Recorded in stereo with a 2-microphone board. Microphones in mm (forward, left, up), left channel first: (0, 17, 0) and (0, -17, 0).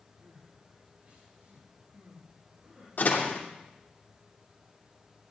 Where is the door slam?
55° left (ahead or behind), 3 m.